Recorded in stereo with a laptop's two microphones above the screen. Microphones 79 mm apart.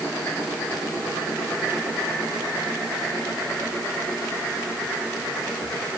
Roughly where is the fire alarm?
I don't hear a fire alarm.